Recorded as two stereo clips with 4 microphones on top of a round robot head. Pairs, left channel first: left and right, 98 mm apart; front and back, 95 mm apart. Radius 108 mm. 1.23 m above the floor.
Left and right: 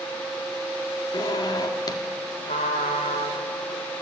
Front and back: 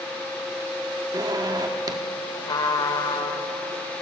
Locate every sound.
1.1 s a zipper: 135° left, 1.3 m
2.5 s a trumpet: 45° left, 1.6 m